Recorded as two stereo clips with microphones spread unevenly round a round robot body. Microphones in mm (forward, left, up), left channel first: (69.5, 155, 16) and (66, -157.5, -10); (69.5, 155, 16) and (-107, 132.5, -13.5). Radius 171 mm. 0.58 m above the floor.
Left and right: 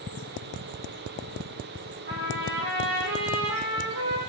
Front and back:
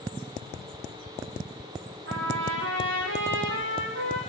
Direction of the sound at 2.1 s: 155° right.